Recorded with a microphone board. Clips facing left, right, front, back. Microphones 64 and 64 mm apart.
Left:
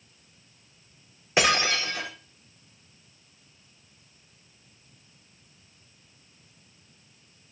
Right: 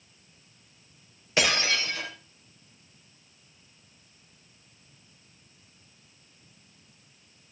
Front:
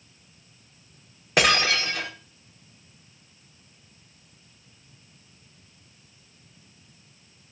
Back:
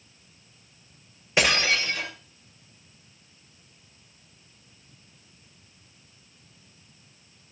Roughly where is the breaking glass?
Ahead.